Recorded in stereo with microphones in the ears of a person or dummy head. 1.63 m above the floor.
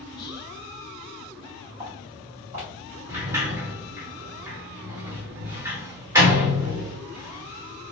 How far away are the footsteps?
About 1.7 m.